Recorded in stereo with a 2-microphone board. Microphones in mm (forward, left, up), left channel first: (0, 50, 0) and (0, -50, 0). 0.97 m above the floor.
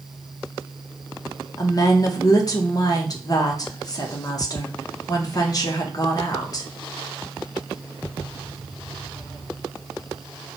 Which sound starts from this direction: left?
A woman speaking, at 1.6 s.